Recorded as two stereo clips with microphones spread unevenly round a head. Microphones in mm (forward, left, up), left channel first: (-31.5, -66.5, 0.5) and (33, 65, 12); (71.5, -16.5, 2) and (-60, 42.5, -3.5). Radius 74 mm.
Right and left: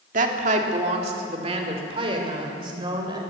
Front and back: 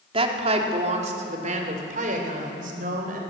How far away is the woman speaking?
About 2.5 m.